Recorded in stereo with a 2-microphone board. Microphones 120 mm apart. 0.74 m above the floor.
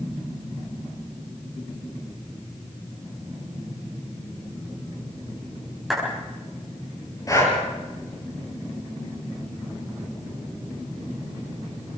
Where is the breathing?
30° left (ahead or behind), 5.5 m.